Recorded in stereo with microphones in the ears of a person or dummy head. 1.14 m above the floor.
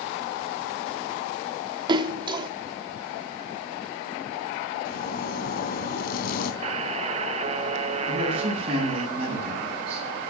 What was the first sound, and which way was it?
A splash, 30° right (ahead or behind).